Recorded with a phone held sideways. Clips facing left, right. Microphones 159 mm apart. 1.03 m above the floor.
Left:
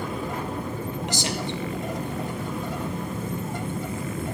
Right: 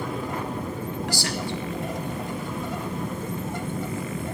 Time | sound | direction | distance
1.1 | a man speaking | 20° left (ahead or behind) | 0.9 m